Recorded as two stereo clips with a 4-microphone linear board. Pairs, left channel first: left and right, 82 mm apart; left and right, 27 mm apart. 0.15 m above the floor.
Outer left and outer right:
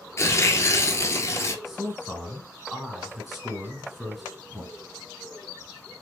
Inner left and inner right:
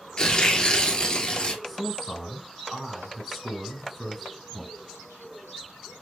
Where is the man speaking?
Centre (ahead or behind), 1.3 m.